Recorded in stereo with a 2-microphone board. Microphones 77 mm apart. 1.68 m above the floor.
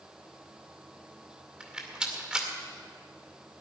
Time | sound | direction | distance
1.6 | a rattle | 10° right (ahead or behind) | 2 m